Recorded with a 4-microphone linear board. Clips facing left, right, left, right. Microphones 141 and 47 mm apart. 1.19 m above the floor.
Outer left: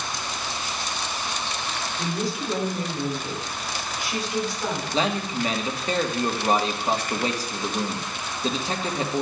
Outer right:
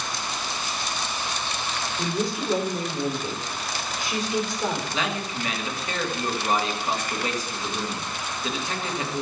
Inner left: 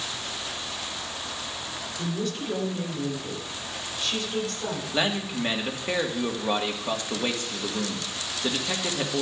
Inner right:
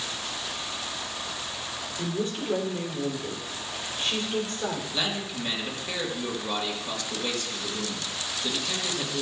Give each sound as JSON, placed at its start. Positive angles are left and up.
{"t": 2.0, "sound": "a woman speaking", "side_deg": -25, "distance_m": 3.5}
{"t": 4.9, "sound": "a man speaking", "side_deg": 35, "distance_m": 1.7}